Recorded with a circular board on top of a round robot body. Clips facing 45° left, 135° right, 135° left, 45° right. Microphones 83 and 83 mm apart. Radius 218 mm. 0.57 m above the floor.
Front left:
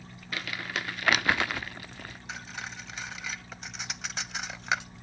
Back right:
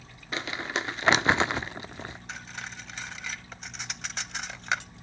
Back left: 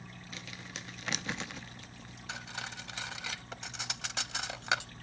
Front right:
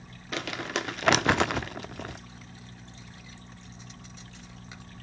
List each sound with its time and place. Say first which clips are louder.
0.3 s crumpling: back right 3 dB, front right 17 dB; 70° right
2.3 s cutlery clinking: even, back left 6 dB; 130° left